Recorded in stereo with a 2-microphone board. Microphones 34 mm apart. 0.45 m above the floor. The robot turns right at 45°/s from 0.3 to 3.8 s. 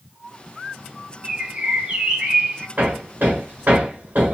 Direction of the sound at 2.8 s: 50° right (ahead or behind).